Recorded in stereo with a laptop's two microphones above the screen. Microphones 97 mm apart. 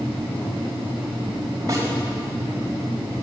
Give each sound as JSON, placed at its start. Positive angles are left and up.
{"t": 1.7, "sound": "a snare drum", "side_deg": -35, "distance_m": 5.0}